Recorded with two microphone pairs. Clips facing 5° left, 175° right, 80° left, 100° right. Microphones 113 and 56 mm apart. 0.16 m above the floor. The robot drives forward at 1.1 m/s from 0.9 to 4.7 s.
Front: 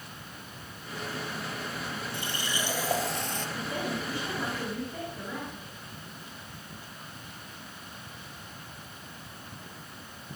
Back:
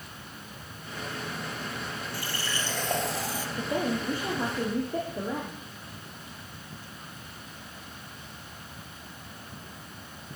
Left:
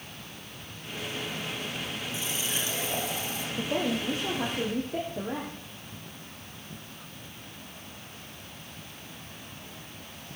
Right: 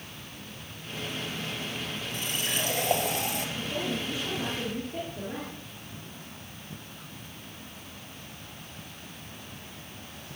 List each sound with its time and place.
2.1 s a running tap: 65° right, 2.5 m; by 3.5 s 95° right, 2.5 m
3.6 s a woman speaking: 125° left, 3.5 m; by 5.6 s 140° left, 4 m